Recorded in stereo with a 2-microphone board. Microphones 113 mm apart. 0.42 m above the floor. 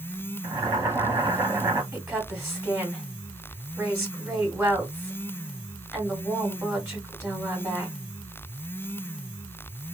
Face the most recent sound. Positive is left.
turn(degrees=-20)  # may be behind; listen again after turning